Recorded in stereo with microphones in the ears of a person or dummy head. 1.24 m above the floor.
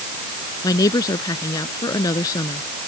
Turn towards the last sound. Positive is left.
turn(degrees=25)  # may be behind; listen again after turning